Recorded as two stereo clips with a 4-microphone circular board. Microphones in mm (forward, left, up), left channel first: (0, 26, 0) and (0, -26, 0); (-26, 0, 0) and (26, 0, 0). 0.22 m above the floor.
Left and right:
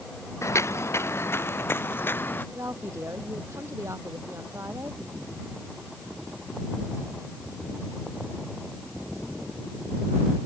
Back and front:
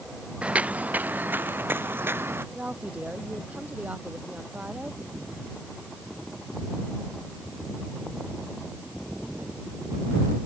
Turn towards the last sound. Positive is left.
turn(degrees=-60)